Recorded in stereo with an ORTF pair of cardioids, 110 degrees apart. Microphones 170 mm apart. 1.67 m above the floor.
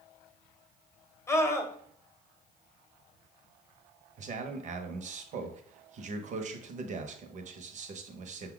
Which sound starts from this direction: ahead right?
A man speaking, at 4.2 s.